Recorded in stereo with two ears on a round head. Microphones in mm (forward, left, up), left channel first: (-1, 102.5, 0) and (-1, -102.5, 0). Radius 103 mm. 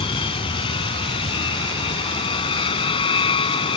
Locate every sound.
0.0 s an aircraft: 25° left (ahead or behind)